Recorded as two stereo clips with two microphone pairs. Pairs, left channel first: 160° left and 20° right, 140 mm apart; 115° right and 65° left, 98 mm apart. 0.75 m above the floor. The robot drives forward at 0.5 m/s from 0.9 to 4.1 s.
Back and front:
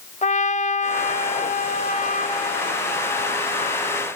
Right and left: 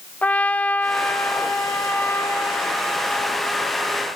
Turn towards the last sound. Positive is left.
turn(degrees=175)